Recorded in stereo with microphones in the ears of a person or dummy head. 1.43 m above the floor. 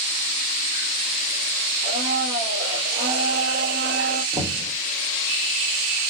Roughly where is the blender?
Right.